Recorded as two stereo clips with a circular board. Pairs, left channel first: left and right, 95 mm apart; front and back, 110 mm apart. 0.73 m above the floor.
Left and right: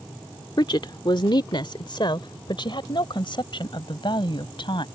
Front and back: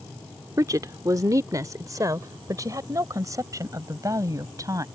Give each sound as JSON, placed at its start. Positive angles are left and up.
{"t": 0.6, "sound": "a woman speaking", "azimuth_deg": 125}